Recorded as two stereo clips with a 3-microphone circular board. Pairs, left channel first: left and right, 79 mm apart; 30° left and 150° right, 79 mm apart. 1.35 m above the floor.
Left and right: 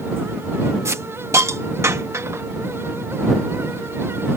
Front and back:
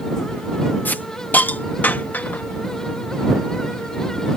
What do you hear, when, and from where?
0.8 s a hiss: 40° right